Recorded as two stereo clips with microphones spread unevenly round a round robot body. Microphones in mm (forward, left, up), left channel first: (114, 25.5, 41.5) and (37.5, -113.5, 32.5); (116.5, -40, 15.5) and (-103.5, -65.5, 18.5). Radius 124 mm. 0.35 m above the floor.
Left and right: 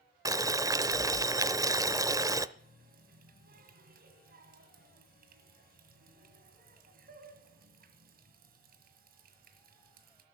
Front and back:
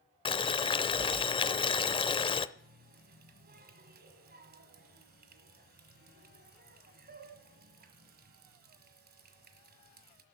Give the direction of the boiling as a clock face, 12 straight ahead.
2 o'clock.